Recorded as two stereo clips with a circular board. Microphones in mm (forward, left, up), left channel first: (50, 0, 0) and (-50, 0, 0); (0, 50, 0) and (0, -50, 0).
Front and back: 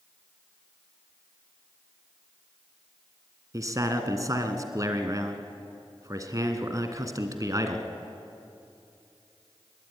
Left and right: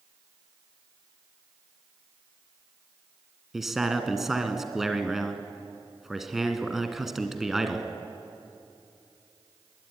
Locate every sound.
3.5 s a man speaking: 175° right, 2.0 m